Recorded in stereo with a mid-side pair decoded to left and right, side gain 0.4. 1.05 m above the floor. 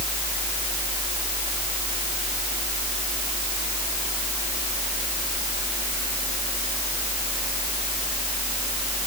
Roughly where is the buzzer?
No buzzer in this recording.